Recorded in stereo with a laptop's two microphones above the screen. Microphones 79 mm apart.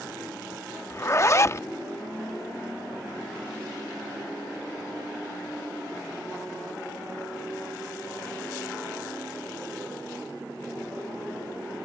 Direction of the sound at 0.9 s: 35° left (ahead or behind).